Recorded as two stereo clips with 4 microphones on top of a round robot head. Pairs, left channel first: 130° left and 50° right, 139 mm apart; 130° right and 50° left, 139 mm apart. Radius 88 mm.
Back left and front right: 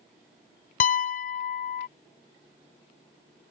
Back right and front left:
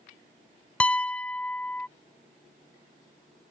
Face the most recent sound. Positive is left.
turn(degrees=150)